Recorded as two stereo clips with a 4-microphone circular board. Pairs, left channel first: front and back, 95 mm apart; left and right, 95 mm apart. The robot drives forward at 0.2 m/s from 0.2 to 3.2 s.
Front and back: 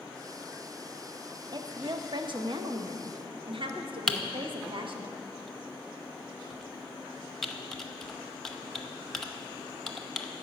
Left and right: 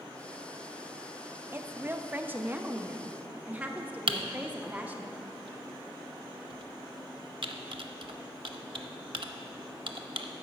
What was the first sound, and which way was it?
A woman speaking, 150° right.